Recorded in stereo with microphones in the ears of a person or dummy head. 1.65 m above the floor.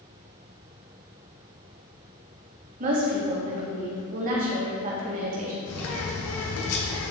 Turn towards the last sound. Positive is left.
turn(degrees=85)